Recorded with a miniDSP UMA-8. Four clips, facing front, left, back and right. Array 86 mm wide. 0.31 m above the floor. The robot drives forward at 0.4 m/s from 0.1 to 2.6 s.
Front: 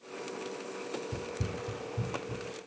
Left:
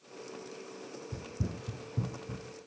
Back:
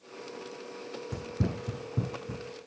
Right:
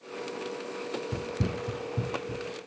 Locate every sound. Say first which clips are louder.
1.1 s running footsteps: right 4 dB, back 3 dB; 110° right, 0.7 m; by 2.5 s straight behind, 2.5 m